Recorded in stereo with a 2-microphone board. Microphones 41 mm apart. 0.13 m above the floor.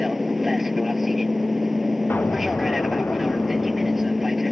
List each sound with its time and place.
0.0 s an aircraft: 5° right (ahead or behind)
2.1 s an explosion: 60° left (ahead or behind)